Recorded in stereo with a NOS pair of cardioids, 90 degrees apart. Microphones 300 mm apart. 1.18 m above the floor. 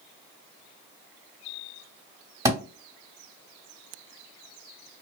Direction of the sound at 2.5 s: 10° right.